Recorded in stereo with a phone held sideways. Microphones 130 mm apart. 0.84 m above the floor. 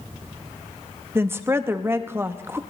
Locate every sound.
1.1 s a woman speaking: 20° right (ahead or behind), 0.7 m